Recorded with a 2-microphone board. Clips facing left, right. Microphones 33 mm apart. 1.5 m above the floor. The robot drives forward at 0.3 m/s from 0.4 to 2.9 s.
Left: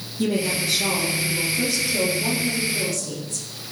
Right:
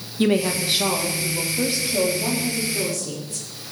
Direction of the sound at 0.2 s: 50° right (ahead or behind).